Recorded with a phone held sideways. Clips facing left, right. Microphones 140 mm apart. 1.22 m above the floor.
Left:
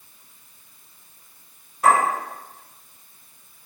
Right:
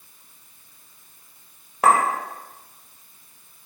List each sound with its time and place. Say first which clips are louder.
1.8 s a clink: even; 70° right (ahead or behind), 1.1 m